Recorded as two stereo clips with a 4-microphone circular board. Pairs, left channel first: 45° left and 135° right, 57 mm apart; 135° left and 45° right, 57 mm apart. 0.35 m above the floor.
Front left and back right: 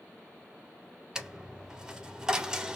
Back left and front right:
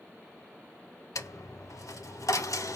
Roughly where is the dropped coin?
Behind left.